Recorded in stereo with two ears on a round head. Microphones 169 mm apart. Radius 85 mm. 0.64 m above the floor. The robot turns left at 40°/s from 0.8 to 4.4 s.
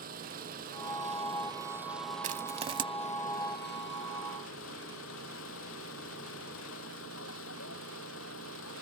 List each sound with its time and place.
0.0 s an engine running: 130° right; by 8.8 s 85° left
2.2 s crushing: 45° right (ahead or behind); by 2.9 s 25° right (ahead or behind)